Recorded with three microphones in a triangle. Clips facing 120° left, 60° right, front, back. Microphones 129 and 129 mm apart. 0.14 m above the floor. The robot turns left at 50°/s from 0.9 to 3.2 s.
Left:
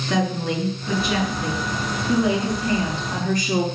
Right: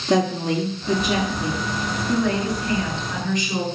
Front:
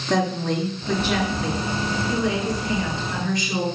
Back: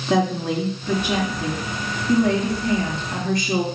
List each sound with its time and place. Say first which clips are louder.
0.1 s a woman speaking: right 3 dB, back 2 dB; 110° right, 1.9 m; by 3.6 s 135° left, 1.9 m